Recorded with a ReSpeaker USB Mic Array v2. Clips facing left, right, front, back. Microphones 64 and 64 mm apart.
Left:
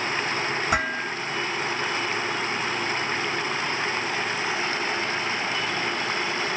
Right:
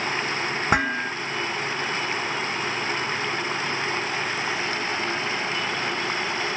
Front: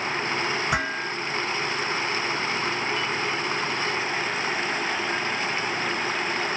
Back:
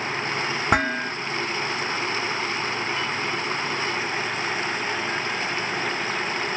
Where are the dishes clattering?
140° right, 1.1 m.